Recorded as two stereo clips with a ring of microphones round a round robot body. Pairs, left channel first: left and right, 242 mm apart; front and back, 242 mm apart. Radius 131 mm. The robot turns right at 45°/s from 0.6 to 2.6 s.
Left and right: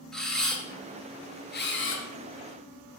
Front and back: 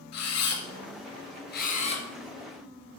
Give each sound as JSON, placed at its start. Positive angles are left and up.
{"t": 0.1, "sound": "a camera shutter", "azimuth_deg": 5, "distance_m": 2.0}